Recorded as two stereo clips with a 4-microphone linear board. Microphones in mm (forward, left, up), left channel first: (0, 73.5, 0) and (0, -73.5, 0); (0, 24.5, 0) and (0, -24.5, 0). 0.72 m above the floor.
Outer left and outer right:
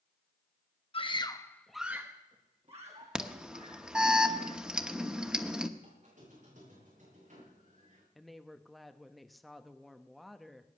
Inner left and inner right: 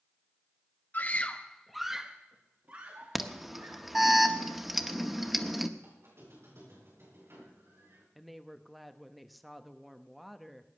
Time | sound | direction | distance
0.9 | a scream | 40° left (ahead or behind) | 1.3 m
3.1 | an alarm | 5° right (ahead or behind) | 1.0 m
5.8 | a squeak | 60° right (ahead or behind) | 8 m
8.2 | a woman speaking | centre (ahead or behind) | 0.9 m